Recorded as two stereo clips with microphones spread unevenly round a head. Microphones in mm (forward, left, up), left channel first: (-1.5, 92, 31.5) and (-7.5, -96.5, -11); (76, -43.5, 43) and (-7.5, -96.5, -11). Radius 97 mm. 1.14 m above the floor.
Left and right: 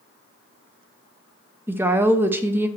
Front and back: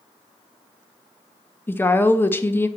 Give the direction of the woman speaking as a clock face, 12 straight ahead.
3 o'clock.